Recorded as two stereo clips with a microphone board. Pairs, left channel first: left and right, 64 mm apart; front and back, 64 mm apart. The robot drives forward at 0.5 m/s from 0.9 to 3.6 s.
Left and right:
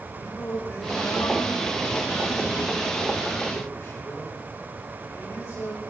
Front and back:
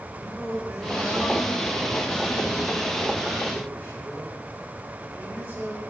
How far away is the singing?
About 3.5 m.